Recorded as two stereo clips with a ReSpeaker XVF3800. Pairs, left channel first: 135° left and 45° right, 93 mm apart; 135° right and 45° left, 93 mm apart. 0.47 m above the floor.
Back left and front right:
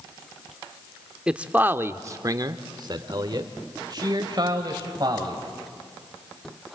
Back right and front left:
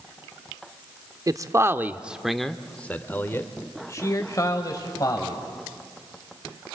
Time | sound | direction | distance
1.3 | a man speaking | 30° left | 0.8 m